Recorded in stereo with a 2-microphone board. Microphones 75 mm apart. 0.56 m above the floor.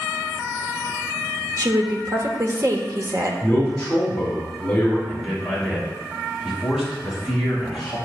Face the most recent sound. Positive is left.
turn(degrees=-5)  # may be behind; listen again after turning